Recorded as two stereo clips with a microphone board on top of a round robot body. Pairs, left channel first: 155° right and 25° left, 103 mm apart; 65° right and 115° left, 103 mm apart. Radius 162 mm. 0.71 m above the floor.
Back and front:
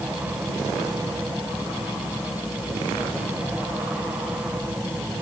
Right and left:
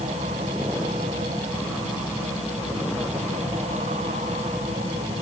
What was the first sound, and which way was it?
Only background noise.